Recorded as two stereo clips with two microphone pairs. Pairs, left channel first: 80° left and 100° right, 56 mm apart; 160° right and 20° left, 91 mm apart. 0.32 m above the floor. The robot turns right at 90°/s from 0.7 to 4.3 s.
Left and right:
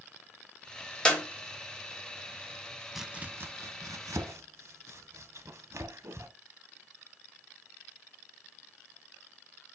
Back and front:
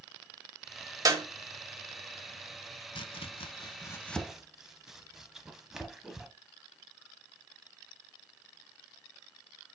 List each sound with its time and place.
1.1 s a clap: 10° left, 1.2 m; by 1.2 s 25° left, 1.2 m
3.0 s chopping: 175° left, 0.5 m; by 6.3 s 65° right, 0.5 m